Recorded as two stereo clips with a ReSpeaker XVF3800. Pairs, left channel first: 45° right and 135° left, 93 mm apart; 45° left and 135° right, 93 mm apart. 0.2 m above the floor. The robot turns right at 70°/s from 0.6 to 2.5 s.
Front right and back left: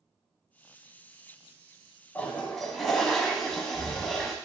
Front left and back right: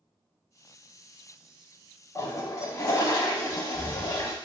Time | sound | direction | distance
2.1 | a toilet flushing | 15° left | 0.6 m